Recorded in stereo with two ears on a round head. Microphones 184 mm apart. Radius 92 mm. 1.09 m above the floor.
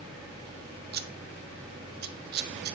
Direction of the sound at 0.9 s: 50° right (ahead or behind).